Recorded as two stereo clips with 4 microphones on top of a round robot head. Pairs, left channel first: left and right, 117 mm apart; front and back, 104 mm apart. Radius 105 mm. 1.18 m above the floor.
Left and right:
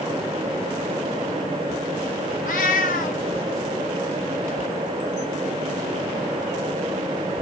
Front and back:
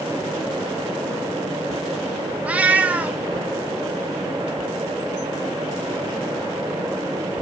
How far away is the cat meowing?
About 1.3 m.